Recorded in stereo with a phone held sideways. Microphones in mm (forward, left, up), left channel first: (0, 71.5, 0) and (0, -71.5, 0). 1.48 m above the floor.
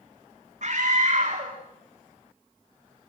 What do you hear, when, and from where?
0.6 s a scream: 55° right (ahead or behind), 3.5 m